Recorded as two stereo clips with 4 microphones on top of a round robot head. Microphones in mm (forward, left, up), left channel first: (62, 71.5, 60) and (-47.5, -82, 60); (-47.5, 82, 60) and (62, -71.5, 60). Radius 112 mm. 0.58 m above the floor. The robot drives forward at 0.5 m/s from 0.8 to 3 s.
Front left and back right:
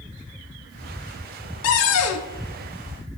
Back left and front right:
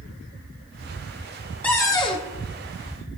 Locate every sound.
1.6 s a cupboard door: 45° left, 0.6 m; by 2.3 s 70° left, 0.5 m